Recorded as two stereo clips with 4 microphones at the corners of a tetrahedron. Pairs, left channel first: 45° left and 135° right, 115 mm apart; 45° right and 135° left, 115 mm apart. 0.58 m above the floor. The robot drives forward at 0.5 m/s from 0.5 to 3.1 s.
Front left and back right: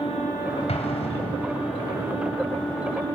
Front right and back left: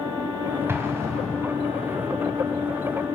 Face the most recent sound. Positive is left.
turn(degrees=90)